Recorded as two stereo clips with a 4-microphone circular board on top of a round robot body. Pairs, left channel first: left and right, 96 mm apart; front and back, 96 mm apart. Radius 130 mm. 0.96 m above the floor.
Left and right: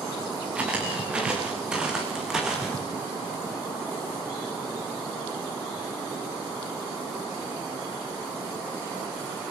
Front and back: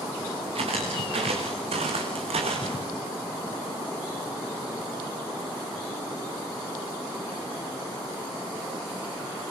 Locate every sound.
0.6 s footsteps: 170° right, 7 m; by 2.8 s 175° right, 5.5 m